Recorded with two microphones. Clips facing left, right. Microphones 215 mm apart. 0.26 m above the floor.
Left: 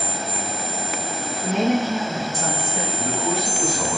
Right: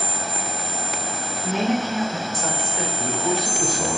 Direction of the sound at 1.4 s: 55° left (ahead or behind).